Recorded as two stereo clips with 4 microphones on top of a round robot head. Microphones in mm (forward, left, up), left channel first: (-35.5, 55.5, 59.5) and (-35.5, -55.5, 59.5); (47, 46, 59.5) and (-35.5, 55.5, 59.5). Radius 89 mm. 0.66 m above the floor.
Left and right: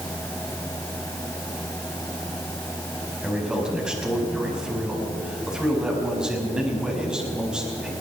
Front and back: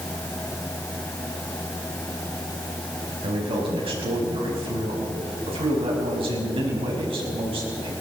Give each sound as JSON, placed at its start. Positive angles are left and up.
{"t": 3.2, "sound": "a man speaking", "azimuth_deg": -175, "distance_m": 5.5}